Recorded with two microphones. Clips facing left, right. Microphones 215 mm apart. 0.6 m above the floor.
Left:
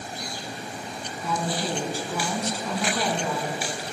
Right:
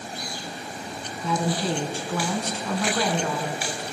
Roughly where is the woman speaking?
Centre.